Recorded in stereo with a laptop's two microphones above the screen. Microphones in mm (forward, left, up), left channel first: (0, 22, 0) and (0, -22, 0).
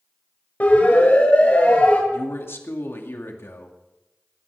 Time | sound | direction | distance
0.6 | a siren | 40° left (ahead or behind) | 6.5 m
2.1 | a man speaking | 65° left (ahead or behind) | 2 m